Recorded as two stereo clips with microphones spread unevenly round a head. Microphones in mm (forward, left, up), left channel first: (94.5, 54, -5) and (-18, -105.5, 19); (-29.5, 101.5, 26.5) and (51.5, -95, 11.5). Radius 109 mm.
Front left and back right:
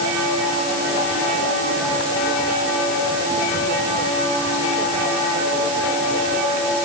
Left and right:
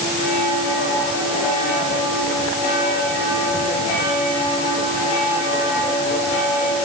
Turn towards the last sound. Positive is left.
No sound to turn to.